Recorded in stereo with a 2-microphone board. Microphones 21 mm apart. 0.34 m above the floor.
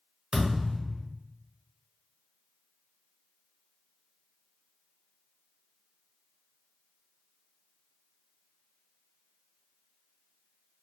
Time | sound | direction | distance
0.3 | a thud | 70° right (ahead or behind) | 1.7 m